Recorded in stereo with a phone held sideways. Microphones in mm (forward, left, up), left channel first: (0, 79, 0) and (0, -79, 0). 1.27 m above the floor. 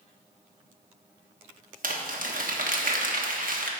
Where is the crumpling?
60° right (ahead or behind), 1.1 m.